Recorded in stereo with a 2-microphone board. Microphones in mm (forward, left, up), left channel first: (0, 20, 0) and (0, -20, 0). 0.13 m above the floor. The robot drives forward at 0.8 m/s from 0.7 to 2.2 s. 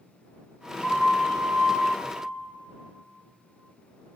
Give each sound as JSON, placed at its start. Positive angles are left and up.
{"t": 0.8, "sound": "a flute", "side_deg": 60, "distance_m": 5.0}